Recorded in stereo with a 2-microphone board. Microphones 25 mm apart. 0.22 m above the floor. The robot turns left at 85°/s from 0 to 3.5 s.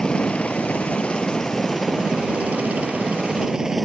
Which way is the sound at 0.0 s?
150° left.